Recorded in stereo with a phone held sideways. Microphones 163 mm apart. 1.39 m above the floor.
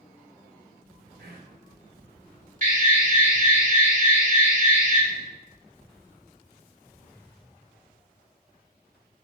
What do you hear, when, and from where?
1.2 s whispering: 75° right (ahead or behind), 1.6 m
2.6 s an alarm: 55° right (ahead or behind), 1.6 m